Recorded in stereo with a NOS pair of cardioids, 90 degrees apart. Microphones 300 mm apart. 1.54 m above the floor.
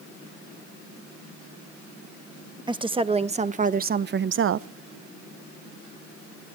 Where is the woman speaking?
15° right, 1.4 m; by 4.7 s 60° right, 0.7 m.